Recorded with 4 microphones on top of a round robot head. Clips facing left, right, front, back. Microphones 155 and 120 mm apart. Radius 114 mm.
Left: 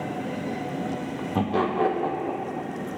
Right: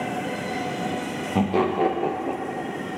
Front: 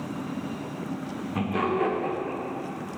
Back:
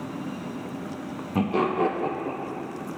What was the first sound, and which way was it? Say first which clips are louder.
Laughter: right 3 dB, back 3 dB; 155° right.